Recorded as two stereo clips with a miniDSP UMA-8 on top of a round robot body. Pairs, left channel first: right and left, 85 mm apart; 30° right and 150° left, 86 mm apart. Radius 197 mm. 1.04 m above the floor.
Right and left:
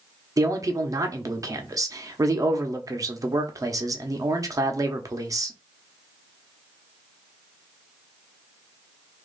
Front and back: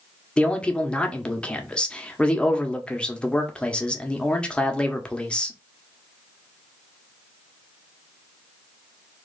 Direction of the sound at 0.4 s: 50° left.